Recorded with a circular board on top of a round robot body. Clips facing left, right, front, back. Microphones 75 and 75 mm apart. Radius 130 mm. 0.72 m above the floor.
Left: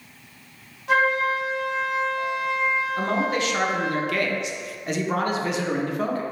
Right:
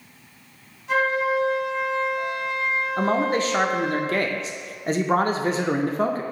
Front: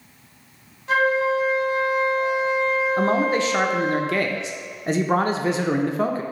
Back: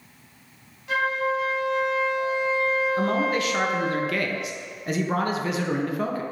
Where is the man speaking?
50° right, 0.5 m.